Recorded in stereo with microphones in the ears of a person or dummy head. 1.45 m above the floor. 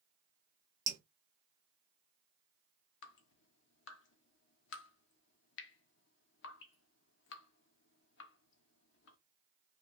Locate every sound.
0.9 s dripping: 15° right (ahead or behind), 0.7 m
3.0 s dripping: 70° left (ahead or behind), 0.6 m